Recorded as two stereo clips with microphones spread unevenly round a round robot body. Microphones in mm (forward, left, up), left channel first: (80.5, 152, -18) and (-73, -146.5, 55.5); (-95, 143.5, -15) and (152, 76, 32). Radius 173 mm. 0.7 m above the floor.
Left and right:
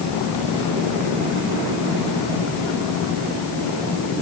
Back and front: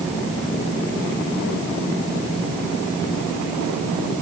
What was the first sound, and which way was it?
Only background noise.